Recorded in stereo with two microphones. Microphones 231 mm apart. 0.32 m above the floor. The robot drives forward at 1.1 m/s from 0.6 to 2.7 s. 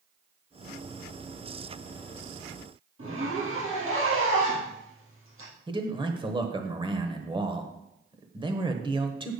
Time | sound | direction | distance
3.0 | a zipper | 65° right (ahead or behind) | 3.5 m
5.7 | a man speaking | 20° right (ahead or behind) | 1.0 m